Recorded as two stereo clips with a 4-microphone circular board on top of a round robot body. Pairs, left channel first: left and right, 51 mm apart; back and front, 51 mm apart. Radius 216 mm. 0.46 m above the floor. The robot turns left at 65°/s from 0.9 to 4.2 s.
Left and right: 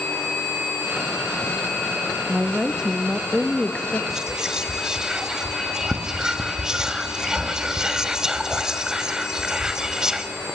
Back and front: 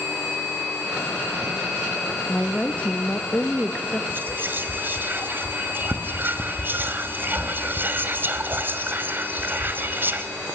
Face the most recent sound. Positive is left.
turn(degrees=-15)